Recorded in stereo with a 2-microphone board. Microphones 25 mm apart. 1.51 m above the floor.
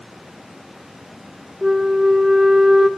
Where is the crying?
No crying in this recording.